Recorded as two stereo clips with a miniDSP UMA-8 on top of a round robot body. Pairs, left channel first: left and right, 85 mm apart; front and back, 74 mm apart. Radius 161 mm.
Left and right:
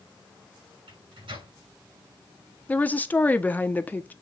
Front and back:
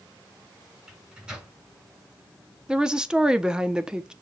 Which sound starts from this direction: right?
A microwave, at 0.9 s.